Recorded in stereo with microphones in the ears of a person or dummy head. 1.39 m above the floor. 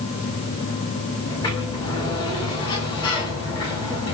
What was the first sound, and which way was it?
A sliding door, 20° left (ahead or behind).